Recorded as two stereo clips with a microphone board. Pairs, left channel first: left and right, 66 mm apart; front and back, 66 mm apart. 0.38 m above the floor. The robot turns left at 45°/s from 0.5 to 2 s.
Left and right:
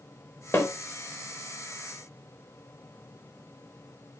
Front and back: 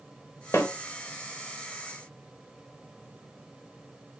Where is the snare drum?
40° left, 0.6 m; by 0.7 s 35° left, 0.6 m.